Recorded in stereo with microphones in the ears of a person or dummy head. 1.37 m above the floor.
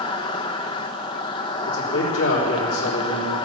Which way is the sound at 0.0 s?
30° left (ahead or behind).